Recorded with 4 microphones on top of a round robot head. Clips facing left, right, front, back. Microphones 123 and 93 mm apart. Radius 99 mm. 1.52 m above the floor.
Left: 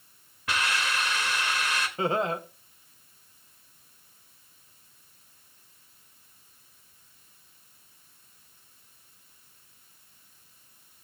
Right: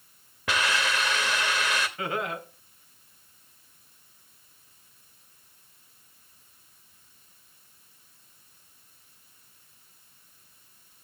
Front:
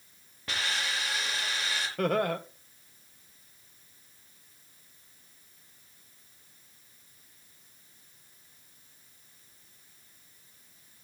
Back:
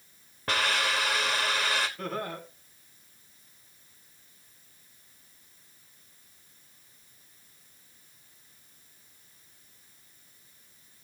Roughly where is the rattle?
No rattle in this recording.